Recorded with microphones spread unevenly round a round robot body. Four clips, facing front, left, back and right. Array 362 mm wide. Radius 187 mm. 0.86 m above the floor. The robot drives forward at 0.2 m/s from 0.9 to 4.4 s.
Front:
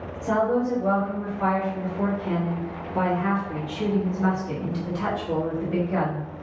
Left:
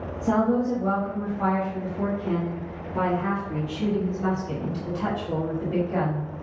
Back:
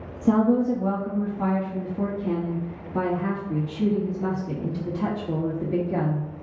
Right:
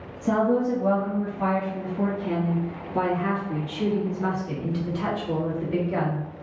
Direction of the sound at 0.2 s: 170° right.